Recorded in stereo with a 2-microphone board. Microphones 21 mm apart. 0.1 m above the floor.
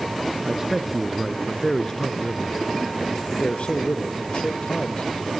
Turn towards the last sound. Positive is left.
turn(degrees=65)  # may be behind; listen again after turning